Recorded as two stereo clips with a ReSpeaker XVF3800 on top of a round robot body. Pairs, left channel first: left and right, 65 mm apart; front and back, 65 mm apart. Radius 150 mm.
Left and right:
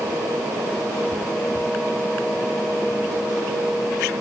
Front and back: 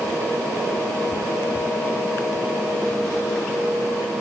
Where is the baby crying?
No baby crying in this recording.